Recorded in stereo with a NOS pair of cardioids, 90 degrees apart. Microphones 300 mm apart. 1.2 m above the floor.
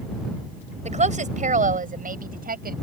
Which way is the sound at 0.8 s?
25° right.